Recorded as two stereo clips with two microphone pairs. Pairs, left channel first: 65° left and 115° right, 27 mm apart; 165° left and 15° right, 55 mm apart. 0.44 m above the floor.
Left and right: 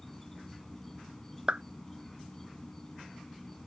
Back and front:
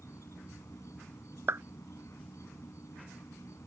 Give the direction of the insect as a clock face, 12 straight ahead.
7 o'clock.